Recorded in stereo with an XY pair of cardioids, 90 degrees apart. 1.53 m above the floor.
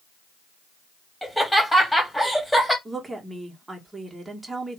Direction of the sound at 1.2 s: 5° left.